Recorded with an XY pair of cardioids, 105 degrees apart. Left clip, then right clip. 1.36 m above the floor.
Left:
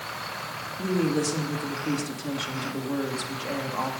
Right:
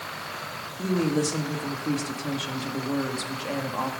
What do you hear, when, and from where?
0.8 s a woman speaking: 10° right, 2 m